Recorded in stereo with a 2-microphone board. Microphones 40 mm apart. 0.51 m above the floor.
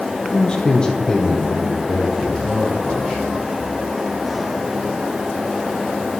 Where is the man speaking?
25° left (ahead or behind), 0.7 m; by 3.2 s 15° left (ahead or behind), 3.5 m.